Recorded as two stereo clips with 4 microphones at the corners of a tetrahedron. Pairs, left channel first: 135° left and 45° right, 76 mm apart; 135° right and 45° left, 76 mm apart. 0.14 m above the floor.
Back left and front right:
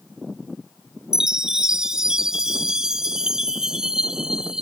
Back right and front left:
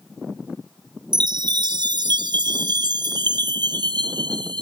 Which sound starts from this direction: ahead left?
A chime, at 1.1 s.